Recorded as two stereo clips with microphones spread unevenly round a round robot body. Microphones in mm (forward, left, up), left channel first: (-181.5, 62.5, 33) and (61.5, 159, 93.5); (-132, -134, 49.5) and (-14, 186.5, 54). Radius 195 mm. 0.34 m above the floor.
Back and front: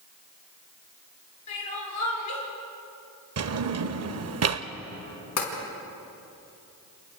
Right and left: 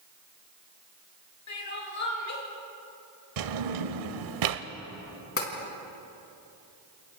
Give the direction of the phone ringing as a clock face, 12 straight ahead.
No phone ringing in this recording.